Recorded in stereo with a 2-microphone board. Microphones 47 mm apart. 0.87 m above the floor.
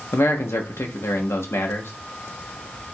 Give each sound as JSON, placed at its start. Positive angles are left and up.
{"t": 0.1, "sound": "a man speaking", "side_deg": 65, "distance_m": 0.9}